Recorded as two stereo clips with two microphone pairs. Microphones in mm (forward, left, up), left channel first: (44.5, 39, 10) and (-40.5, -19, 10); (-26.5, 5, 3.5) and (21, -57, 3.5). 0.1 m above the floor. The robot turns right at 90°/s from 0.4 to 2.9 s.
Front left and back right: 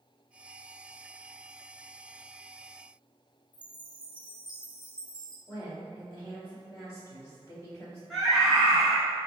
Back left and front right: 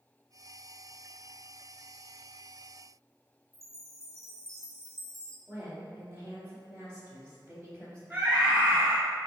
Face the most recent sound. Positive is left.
turn(degrees=-55)